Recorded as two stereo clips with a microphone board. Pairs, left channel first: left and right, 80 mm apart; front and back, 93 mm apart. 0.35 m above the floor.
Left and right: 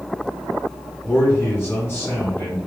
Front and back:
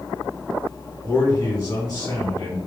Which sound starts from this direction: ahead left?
A man speaking, at 1.0 s.